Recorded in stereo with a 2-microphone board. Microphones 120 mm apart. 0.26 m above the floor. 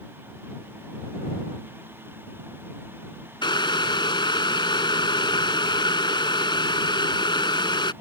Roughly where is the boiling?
Left.